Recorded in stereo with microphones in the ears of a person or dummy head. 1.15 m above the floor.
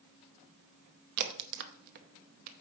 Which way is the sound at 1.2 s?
55° right (ahead or behind).